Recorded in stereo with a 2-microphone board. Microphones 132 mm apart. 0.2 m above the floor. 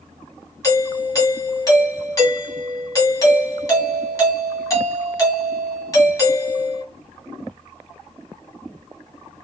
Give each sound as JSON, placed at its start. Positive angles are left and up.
{"t": 0.6, "sound": "a doorbell", "side_deg": 25, "distance_m": 1.7}